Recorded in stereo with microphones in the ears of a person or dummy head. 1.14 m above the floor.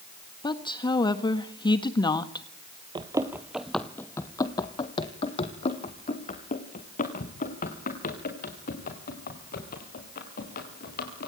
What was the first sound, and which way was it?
A woman speaking, 15° left (ahead or behind).